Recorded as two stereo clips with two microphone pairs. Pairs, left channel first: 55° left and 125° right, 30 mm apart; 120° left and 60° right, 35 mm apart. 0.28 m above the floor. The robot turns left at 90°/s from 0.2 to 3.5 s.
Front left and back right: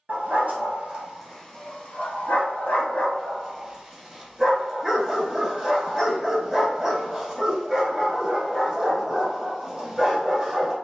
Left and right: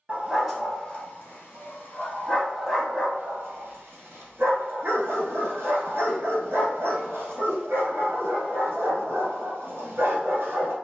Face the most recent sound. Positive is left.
turn(degrees=-50)